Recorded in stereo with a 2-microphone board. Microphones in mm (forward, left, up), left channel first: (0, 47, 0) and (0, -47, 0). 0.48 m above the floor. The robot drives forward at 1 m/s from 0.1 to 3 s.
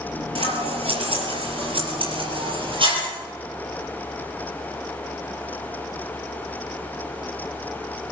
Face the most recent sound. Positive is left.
turn(degrees=-65)  # may be behind; listen again after turning